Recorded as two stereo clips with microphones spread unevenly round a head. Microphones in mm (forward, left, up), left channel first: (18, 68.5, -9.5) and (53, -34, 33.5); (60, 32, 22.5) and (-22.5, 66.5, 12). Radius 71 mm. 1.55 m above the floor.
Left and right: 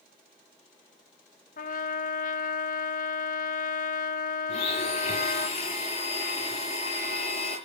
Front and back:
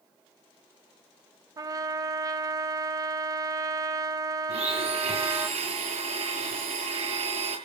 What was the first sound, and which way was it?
A trumpet, 105° left.